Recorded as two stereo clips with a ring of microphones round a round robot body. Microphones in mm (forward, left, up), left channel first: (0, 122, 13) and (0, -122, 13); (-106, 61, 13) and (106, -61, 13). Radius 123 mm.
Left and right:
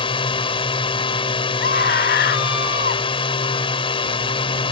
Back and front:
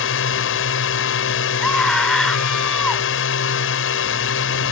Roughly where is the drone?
Behind left.